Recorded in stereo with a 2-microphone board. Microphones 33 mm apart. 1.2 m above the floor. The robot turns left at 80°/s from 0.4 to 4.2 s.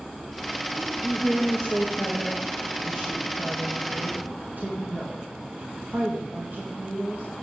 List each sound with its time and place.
0.8 s a woman speaking: 145° right, 2 m; by 7.2 s 60° right, 2 m